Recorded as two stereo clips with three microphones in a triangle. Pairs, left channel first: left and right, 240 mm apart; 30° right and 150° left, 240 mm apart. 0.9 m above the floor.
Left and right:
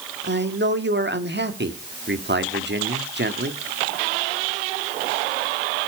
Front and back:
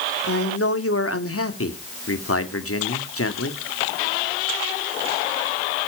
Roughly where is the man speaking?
Ahead right.